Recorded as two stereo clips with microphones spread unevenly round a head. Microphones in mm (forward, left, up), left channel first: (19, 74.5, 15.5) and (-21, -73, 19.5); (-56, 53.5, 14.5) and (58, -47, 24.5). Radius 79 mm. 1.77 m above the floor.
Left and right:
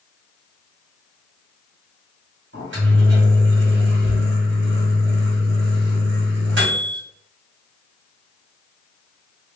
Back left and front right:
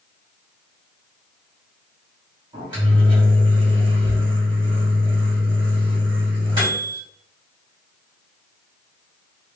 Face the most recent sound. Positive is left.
turn(degrees=-100)